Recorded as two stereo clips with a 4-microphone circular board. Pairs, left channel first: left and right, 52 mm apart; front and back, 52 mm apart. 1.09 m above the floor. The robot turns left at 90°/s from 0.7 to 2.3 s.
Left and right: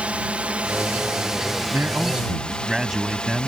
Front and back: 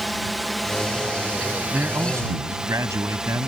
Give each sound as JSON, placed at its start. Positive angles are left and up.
{"t": 0.0, "sound": "a drone", "azimuth_deg": -90}
{"t": 1.7, "sound": "a man speaking", "azimuth_deg": -120}